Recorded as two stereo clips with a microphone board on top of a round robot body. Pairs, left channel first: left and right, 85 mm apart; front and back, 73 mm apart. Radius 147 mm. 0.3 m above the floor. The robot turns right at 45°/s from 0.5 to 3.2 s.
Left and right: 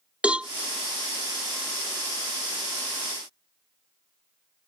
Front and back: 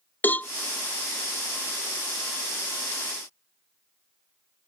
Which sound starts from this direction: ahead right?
A cowbell, at 0.2 s.